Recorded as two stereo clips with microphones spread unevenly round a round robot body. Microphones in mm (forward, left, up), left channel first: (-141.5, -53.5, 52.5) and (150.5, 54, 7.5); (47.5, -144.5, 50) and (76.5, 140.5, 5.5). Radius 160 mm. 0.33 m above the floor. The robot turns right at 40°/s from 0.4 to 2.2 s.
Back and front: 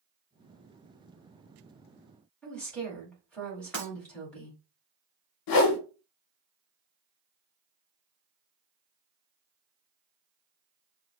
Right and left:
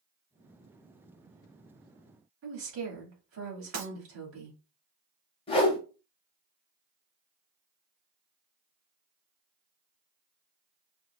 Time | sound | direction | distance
2.4 | a woman speaking | 110° left | 2 m
3.7 | breaking glass | 115° left | 3 m
5.5 | a whoosh | 170° right | 0.8 m